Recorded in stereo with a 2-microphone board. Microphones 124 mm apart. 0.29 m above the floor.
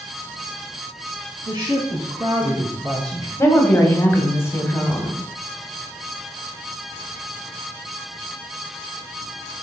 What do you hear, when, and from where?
1.4 s a woman speaking: 30° right (ahead or behind), 3 m
3.4 s a woman speaking: 20° left (ahead or behind), 1.7 m